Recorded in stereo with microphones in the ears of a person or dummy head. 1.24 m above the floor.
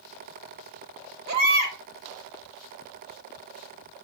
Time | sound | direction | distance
1.3 | a baby crying | 60° right (ahead or behind) | 1.8 m